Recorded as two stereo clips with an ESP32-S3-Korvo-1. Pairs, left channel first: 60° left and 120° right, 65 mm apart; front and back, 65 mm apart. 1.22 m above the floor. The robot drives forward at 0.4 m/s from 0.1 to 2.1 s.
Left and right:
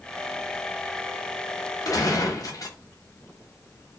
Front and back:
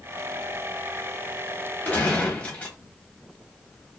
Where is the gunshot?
60° left, 0.8 m; by 2.8 s 70° left, 0.8 m.